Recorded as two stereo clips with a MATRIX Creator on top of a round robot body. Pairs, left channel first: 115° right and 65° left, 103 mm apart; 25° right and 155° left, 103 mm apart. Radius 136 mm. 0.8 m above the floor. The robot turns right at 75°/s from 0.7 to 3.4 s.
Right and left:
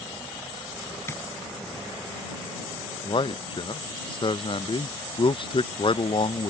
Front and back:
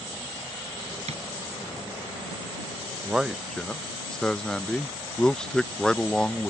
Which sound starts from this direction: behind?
Tapping, at 1.1 s.